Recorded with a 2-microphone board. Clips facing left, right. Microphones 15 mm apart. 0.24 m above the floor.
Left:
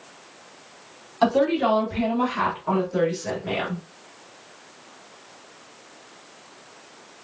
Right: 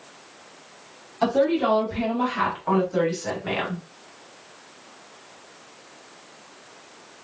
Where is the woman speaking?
20° left (ahead or behind), 1.5 m; by 3.8 s 50° right (ahead or behind), 1.9 m.